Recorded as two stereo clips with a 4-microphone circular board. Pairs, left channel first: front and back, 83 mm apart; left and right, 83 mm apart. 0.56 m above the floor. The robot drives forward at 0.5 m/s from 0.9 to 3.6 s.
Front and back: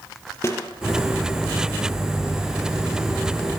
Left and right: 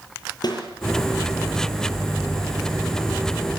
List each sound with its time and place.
0.4 s a snare drum: 55° left, 8.5 m